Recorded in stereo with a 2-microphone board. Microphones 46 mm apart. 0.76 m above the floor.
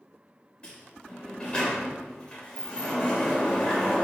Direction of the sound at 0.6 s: 20° left (ahead or behind).